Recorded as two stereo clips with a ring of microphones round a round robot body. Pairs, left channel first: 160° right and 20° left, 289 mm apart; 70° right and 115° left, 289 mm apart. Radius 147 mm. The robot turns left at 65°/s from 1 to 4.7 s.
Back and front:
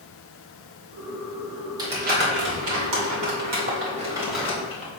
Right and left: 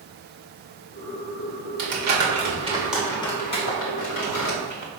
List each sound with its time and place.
1.8 s crumpling: 100° left, 3 m; by 4.9 s 90° right, 3 m